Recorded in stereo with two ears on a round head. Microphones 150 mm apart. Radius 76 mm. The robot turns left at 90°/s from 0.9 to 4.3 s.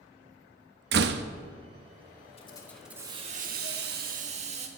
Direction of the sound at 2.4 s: 40° left.